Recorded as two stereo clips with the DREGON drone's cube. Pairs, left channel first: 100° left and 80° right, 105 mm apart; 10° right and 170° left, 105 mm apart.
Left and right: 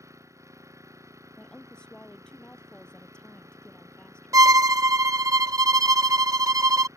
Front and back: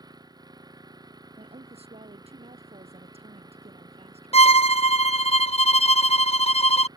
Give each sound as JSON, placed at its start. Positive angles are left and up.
{"t": 0.0, "sound": "an engine running", "azimuth_deg": -140}
{"t": 1.4, "sound": "a woman speaking", "azimuth_deg": -175}
{"t": 4.3, "sound": "a violin", "azimuth_deg": -20}